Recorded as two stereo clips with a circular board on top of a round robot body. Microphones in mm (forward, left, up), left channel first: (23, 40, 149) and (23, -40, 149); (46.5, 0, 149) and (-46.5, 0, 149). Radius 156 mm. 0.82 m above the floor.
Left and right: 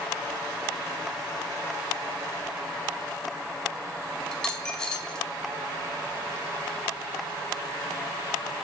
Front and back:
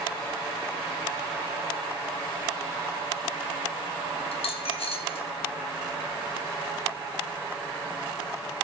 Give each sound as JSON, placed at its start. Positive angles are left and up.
{"t": 4.3, "sound": "a dropped coin", "azimuth_deg": 10, "distance_m": 4.0}